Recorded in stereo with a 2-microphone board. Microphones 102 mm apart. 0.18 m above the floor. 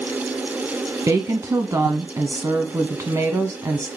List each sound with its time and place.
1.1 s a woman speaking: 30° right (ahead or behind), 1.3 m